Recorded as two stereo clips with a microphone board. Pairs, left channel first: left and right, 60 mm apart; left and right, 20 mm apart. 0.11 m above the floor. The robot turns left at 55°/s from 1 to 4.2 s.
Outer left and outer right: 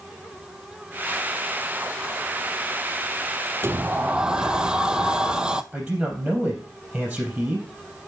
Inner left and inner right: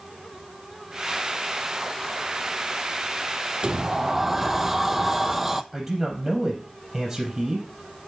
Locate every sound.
3.6 s a sliding door: 135° right, 0.6 m; by 5.6 s 165° right, 0.6 m
5.7 s a man speaking: 10° right (ahead or behind), 3.5 m